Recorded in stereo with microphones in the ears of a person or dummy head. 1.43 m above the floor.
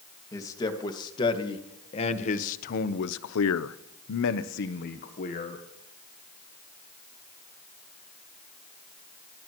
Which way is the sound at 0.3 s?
15° left (ahead or behind).